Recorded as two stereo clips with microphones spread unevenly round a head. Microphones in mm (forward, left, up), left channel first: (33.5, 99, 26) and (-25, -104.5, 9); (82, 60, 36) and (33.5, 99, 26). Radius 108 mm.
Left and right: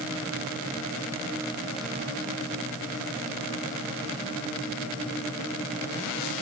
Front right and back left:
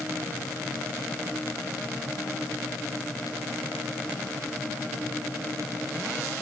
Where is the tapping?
I don't hear tapping.